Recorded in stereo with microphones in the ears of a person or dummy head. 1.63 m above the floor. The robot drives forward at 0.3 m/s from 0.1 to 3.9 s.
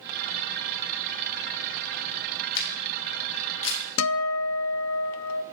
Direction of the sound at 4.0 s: 80° left.